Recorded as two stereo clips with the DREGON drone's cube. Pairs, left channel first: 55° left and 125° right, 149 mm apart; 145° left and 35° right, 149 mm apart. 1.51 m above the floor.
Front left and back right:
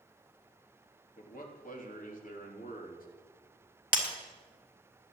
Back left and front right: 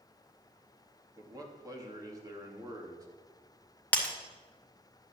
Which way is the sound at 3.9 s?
70° left.